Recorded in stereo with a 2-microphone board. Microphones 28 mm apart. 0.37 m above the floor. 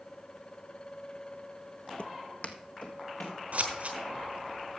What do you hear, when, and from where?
2.0 s footsteps: 50° left (ahead or behind), 0.5 m; by 3.4 s 65° left (ahead or behind), 2.5 m
3.5 s scissors: 60° right (ahead or behind), 2.5 m